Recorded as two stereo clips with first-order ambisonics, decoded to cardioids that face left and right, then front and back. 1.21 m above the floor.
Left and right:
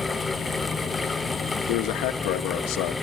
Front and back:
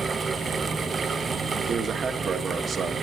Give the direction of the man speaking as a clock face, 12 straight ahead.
8 o'clock.